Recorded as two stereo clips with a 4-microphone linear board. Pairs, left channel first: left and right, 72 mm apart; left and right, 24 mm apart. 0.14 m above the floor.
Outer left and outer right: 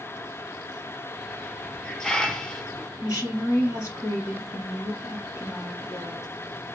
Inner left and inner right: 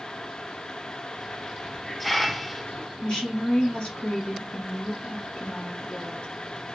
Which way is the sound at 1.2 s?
10° left (ahead or behind).